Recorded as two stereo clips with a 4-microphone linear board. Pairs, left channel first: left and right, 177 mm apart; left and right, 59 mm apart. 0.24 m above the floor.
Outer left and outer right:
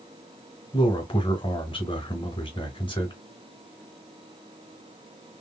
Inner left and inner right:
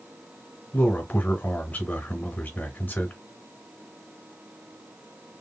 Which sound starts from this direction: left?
A man speaking, at 0.7 s.